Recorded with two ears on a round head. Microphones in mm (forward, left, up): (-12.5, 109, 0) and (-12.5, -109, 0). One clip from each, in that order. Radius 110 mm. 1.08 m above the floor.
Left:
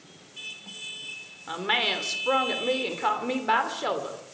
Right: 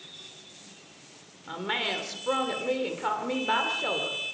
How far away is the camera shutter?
I don't hear a camera shutter.